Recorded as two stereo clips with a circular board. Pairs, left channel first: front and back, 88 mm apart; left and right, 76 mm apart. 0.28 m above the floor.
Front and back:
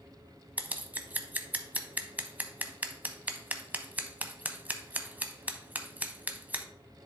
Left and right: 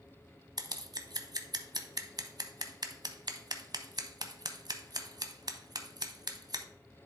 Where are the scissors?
110° right, 0.7 m.